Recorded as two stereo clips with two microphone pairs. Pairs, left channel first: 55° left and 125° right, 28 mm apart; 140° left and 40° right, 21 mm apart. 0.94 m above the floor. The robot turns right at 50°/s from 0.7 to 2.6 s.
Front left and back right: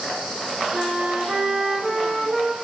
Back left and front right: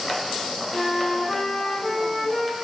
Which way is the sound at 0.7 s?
175° right.